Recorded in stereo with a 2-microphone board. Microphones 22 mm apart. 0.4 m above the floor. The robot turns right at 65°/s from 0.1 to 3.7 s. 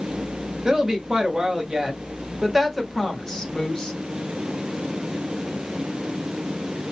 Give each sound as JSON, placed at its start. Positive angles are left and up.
{"t": 0.7, "sound": "a woman speaking", "azimuth_deg": -135, "distance_m": 1.0}